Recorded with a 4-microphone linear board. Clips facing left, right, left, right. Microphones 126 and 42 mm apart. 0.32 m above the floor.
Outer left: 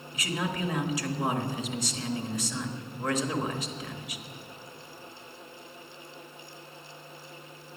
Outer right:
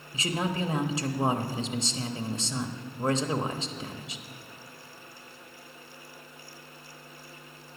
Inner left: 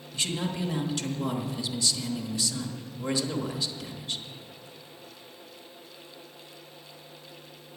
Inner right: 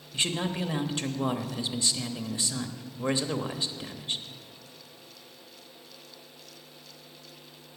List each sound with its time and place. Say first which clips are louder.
0.1 s a man speaking: outer right 2 dB, inner right 1 dB; 25° right (ahead or behind), 0.9 m